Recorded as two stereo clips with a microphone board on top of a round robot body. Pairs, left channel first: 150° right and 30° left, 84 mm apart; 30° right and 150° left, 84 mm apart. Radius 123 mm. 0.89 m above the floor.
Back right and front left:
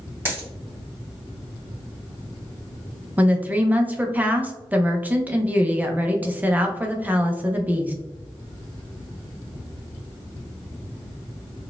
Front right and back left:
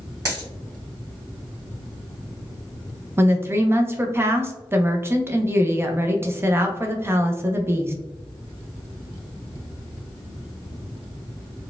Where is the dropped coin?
95° left, 2.0 m.